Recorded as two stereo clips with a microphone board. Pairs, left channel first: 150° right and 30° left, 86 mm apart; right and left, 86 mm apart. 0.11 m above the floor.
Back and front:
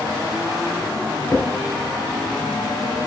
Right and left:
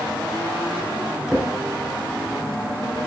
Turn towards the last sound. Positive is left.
turn(degrees=165)